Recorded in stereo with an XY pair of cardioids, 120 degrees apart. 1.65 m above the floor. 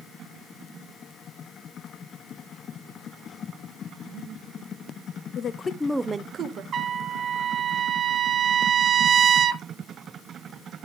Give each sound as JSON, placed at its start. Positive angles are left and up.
{"t": 5.3, "sound": "a woman speaking", "azimuth_deg": 50, "distance_m": 1.1}
{"t": 6.7, "sound": "a trumpet", "azimuth_deg": -45, "distance_m": 0.6}